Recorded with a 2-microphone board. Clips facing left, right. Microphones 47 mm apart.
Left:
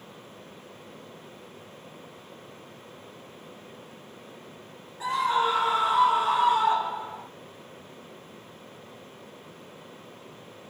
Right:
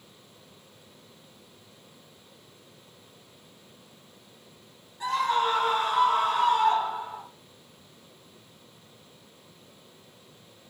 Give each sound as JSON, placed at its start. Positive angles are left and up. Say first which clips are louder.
{"t": 5.0, "sound": "a scream", "louder": "left 1 dB", "side_deg": 15, "distance_m": 9.5}